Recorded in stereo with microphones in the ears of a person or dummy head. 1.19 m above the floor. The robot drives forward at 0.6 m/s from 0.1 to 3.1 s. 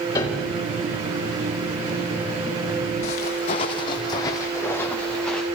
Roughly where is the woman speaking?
No woman speaking in this recording.